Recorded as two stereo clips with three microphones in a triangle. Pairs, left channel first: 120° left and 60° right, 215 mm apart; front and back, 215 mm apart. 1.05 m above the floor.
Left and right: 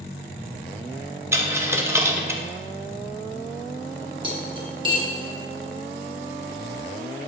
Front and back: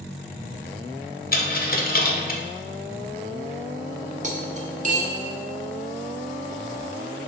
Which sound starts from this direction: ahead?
A dropped coin, at 1.3 s.